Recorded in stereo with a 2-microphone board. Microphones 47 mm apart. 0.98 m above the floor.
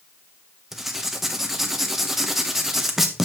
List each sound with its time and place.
0.7 s writing: 5° right (ahead or behind), 1.0 m